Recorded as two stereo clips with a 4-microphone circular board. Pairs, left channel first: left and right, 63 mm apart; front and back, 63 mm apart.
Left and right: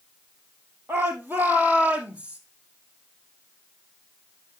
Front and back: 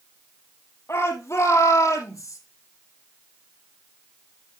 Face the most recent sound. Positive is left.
turn(degrees=-20)